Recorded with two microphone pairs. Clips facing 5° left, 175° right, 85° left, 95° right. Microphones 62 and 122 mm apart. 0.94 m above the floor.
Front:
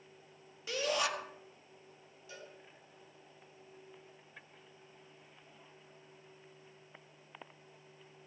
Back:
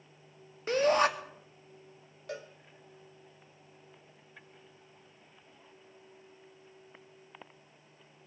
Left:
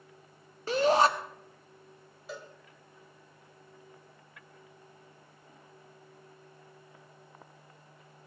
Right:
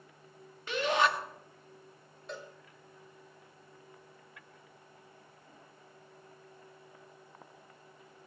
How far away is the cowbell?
About 2 m.